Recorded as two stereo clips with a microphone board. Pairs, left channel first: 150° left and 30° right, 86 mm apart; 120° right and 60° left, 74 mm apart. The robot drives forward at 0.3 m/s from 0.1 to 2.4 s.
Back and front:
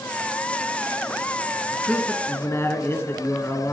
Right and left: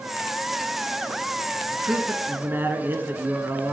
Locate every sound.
1.7 s a man speaking: 95° left, 1.5 m; by 3.7 s 105° left, 1.5 m